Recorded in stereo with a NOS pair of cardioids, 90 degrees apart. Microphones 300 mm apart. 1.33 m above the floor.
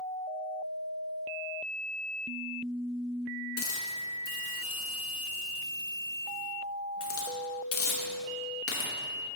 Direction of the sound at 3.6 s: 45° left.